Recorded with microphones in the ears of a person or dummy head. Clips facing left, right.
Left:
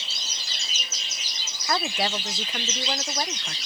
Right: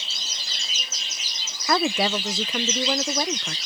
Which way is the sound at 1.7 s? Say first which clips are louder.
Right 5 dB; 60° right (ahead or behind).